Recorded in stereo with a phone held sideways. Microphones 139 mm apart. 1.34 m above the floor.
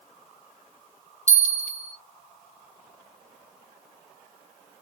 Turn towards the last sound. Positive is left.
turn(degrees=55)  # may be behind; listen again after turning